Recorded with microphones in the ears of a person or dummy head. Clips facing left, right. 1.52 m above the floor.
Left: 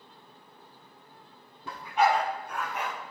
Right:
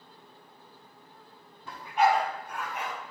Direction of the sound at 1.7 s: 70° left (ahead or behind).